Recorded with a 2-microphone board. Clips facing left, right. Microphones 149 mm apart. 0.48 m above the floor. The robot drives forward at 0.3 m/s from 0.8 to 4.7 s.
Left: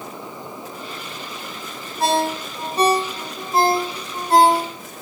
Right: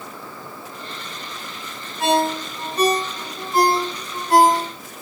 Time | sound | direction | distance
2.0 | a ringtone | 35° left (ahead or behind) | 1.6 m